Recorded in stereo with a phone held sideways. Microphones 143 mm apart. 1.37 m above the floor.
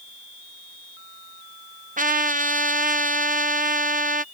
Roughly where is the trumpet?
Right.